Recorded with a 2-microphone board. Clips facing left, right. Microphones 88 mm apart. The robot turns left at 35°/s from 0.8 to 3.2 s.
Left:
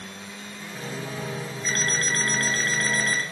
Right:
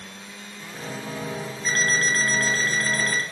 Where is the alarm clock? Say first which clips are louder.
Right 4 dB; 130° right, 1.2 m; by 3.2 s 175° left, 1.2 m.